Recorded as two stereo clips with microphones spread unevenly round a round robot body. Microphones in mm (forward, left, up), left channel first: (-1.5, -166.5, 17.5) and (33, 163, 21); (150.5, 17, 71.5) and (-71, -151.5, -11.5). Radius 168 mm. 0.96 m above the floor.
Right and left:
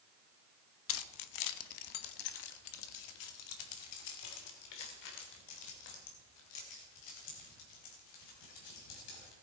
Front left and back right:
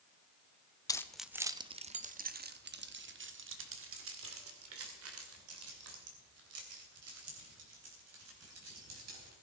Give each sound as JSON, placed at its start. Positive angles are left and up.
{"t": 0.9, "sound": "keys jangling", "azimuth_deg": -45, "distance_m": 0.8}